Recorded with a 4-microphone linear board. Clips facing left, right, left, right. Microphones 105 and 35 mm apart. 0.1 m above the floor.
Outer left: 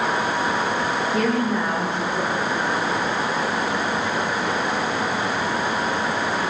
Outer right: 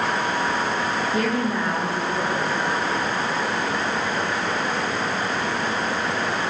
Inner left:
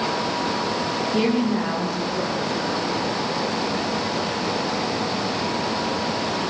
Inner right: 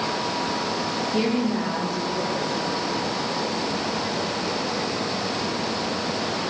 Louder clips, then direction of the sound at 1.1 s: Outer left 3 dB, inner left 2 dB; 5° right (ahead or behind).